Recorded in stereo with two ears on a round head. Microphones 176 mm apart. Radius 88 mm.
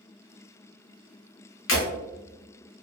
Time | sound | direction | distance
1.7 | breaking glass | 65° left (ahead or behind) | 1.2 m